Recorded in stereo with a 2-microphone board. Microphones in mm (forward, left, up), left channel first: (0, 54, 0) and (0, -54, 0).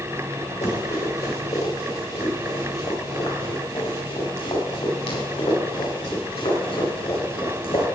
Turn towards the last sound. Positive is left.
turn(degrees=65)  # may be behind; listen again after turning